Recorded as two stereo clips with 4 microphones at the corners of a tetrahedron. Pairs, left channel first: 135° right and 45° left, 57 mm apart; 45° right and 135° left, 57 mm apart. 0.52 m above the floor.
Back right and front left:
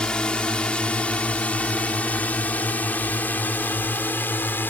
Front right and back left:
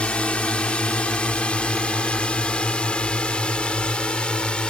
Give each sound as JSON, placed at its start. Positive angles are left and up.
{"t": 0.0, "sound": "a drone", "azimuth_deg": -80}